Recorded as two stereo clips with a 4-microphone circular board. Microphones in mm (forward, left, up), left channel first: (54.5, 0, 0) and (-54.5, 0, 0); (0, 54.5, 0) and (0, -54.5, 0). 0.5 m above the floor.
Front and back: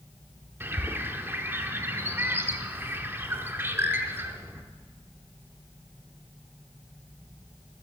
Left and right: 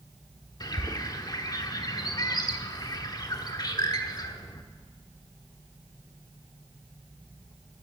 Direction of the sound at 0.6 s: 120° left.